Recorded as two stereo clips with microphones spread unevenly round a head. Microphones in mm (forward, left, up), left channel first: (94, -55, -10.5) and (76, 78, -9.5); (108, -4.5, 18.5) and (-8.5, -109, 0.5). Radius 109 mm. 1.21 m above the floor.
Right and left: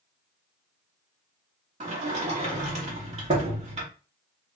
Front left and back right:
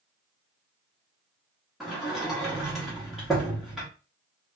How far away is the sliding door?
About 0.8 m.